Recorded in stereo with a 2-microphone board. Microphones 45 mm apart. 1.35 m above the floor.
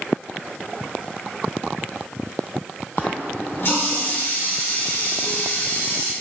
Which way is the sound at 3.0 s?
55° left (ahead or behind).